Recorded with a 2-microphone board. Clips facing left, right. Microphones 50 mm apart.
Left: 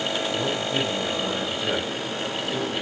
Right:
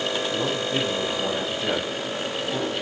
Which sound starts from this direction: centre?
A man speaking, at 0.3 s.